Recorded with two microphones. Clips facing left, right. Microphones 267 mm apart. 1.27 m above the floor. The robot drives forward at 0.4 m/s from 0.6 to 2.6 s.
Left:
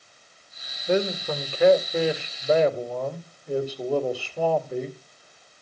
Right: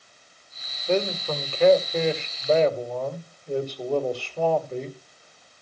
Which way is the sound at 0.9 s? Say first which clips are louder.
Left 1 dB; 10° left (ahead or behind).